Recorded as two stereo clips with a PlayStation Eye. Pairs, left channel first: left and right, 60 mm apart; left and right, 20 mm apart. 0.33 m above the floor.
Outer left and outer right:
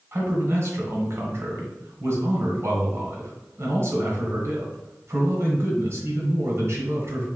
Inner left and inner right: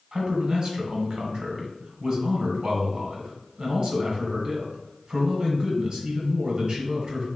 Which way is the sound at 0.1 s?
45° right (ahead or behind).